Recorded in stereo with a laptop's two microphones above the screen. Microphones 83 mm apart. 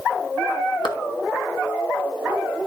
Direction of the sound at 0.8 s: 70° left (ahead or behind).